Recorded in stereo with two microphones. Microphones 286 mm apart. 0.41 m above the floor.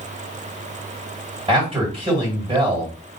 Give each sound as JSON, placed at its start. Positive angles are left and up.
{"t": 1.5, "sound": "a man speaking", "side_deg": -20, "distance_m": 2.0}